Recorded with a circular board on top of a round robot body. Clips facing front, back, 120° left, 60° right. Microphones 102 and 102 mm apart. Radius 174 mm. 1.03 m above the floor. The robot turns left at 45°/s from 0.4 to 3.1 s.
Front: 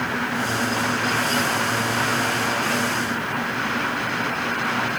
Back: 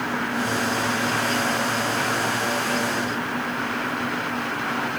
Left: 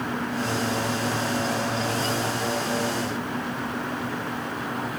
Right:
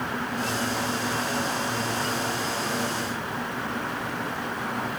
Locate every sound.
Only background noise.